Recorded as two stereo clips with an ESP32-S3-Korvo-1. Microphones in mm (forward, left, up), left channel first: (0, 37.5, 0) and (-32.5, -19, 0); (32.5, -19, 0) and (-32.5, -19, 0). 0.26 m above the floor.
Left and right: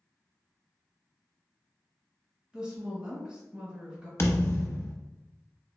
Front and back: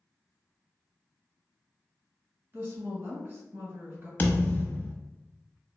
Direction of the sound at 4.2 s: 50° left.